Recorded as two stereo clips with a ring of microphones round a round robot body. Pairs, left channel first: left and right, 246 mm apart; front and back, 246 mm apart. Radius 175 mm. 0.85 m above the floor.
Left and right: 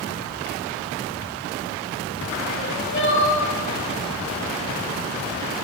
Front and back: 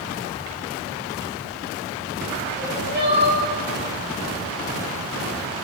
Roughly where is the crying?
Behind left.